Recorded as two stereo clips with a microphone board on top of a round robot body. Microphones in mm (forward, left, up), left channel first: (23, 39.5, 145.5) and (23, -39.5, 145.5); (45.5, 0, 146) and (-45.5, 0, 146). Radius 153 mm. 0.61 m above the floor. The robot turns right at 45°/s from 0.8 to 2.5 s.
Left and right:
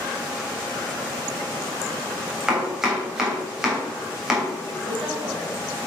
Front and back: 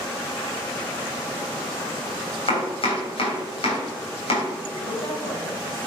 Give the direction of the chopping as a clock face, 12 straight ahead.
12 o'clock.